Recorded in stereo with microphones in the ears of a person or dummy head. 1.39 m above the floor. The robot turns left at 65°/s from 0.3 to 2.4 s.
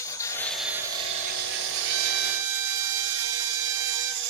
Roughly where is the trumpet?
Ahead right.